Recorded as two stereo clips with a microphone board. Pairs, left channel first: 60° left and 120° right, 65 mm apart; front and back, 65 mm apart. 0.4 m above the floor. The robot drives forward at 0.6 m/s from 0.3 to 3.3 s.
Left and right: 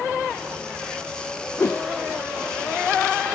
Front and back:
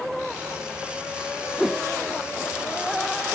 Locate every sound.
1.6 s a whoosh: 90° left; by 1.9 s 110° left